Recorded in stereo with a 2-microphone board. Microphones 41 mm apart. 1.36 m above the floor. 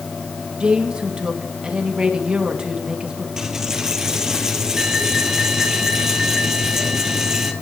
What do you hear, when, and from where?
0.6 s a woman speaking: 20° right (ahead or behind), 2.5 m
3.4 s a dropped coin: 15° right (ahead or behind), 2 m